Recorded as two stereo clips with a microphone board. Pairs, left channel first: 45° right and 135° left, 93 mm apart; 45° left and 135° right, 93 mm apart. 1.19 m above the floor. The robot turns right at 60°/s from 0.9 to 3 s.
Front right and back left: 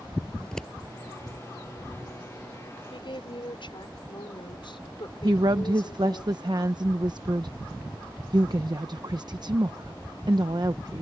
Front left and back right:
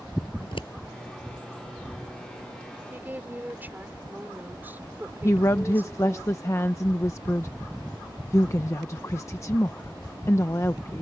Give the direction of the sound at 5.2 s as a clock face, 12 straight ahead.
9 o'clock.